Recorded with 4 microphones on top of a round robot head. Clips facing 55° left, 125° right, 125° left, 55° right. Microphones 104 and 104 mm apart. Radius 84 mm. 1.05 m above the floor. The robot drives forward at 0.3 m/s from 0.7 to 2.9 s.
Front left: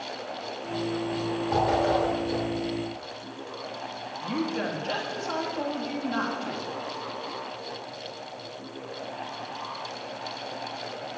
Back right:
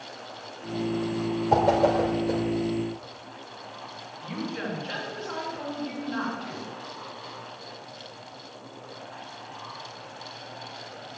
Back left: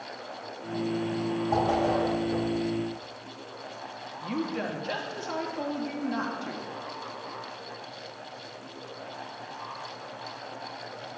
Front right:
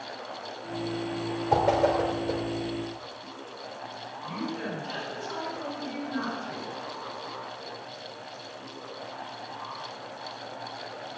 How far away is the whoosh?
About 3 m.